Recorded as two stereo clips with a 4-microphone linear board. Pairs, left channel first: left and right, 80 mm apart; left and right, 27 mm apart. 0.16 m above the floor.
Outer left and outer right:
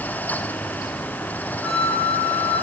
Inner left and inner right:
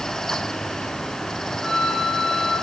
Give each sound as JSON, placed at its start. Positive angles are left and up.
{"t": 1.6, "sound": "a flute", "side_deg": 10, "distance_m": 4.5}